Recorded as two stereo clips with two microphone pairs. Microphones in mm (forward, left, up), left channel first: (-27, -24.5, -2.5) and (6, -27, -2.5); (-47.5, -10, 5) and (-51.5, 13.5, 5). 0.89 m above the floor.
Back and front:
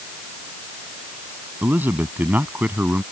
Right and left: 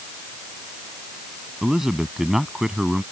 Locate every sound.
1.6 s a man speaking: 30° left; by 3.0 s 35° left